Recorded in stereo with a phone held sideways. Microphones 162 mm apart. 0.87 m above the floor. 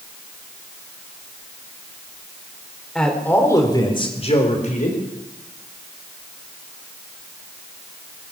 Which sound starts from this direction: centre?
A man speaking, at 3.0 s.